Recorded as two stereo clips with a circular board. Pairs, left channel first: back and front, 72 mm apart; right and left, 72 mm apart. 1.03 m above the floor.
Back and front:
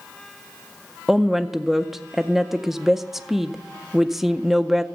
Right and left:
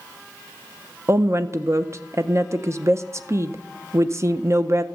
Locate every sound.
1.1 s a woman speaking: 85° left, 0.5 m